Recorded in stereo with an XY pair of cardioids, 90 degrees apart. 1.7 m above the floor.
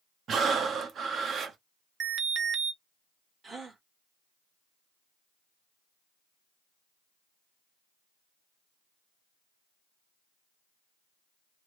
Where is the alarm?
55° right, 0.9 m.